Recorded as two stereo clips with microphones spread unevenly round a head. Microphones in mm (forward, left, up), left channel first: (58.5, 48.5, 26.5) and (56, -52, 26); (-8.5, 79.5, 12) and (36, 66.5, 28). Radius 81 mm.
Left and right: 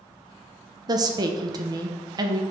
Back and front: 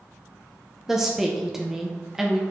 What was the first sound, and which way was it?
A woman speaking, 120° right.